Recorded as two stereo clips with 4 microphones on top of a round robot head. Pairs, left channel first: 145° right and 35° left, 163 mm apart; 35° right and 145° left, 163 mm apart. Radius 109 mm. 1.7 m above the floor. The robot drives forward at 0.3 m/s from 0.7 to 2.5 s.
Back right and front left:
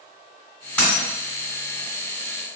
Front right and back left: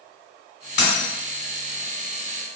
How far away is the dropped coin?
About 2.0 m.